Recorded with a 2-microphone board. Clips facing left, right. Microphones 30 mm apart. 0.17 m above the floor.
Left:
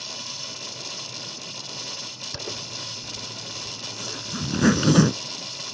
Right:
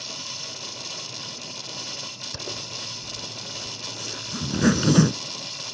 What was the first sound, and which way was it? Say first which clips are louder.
A zipper: left 1 dB; 10° left (ahead or behind).